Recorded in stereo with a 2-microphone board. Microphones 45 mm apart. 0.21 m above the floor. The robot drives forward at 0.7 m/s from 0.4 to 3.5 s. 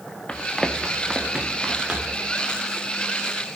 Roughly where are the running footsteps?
Left.